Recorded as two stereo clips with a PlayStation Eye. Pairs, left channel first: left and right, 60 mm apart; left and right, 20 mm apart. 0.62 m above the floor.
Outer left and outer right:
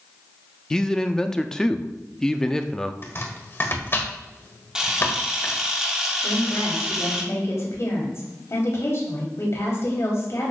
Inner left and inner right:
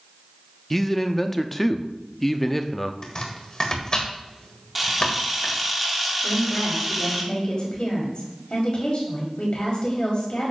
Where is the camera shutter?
10° right (ahead or behind), 1.3 m.